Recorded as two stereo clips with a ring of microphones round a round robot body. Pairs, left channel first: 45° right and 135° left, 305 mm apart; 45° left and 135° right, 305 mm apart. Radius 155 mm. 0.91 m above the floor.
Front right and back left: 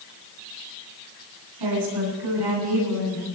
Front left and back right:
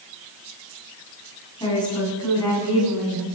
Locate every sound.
1.6 s a woman speaking: 120° left, 9.5 m; by 3.3 s 130° left, 9.5 m